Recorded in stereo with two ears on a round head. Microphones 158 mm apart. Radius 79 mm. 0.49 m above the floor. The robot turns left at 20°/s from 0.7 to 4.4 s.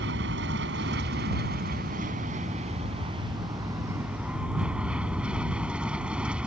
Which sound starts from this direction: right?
An aircraft, at 0.0 s.